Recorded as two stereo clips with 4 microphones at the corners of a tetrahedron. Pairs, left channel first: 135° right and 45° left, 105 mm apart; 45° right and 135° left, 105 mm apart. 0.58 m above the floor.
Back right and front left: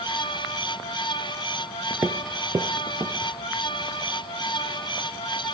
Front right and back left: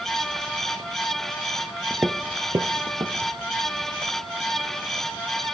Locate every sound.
1.9 s footsteps: 70° left, 0.5 m; by 3.3 s 95° left, 1.1 m